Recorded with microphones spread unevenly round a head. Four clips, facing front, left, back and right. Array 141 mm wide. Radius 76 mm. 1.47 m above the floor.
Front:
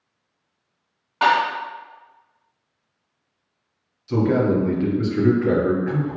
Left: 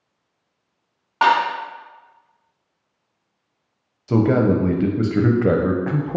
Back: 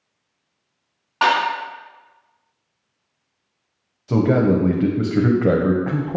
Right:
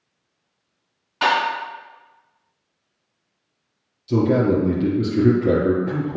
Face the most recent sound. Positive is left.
turn(degrees=135)